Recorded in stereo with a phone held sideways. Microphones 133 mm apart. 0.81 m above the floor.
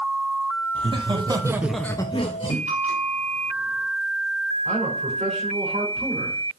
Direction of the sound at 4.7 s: 65° right (ahead or behind).